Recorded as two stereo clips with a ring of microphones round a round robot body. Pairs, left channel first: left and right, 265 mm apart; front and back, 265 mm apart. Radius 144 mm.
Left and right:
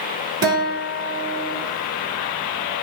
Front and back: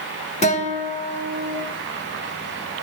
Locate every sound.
0.4 s a guitar: 30° right, 1.1 m